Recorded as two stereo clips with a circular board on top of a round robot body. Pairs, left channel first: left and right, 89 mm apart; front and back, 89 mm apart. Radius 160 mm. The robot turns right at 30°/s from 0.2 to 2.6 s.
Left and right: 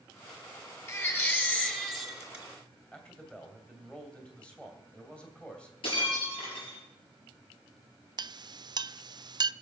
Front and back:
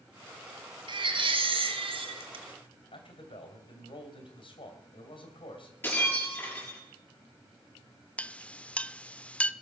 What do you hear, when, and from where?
0.9 s a baby crying: 145° left, 1.9 m; by 2.5 s 165° right, 1.9 m
2.9 s a man speaking: 10° left, 2.5 m
5.8 s breaking glass: 70° left, 6.5 m
8.2 s a clink: 75° right, 0.5 m